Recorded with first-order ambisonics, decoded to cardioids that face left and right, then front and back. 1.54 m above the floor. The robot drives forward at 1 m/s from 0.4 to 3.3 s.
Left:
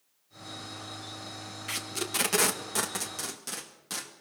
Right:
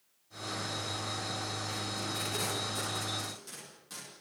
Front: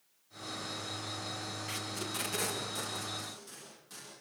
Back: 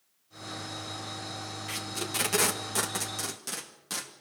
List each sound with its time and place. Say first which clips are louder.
1.7 s tape being pulled: left 2 dB, back 6 dB; 100° left, 1.5 m; by 4.1 s 140° left, 2.5 m